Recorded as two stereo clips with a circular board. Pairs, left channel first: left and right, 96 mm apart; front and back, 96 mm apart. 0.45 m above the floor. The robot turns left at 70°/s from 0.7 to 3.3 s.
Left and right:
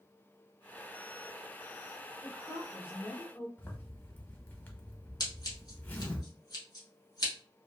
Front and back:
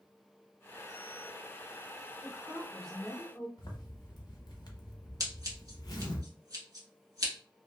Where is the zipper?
25° left, 0.7 m.